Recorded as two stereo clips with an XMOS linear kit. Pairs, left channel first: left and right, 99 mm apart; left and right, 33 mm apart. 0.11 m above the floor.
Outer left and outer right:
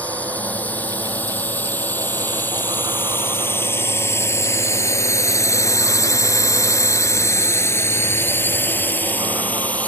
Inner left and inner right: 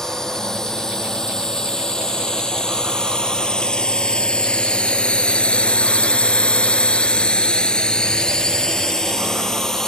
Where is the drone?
15° left (ahead or behind).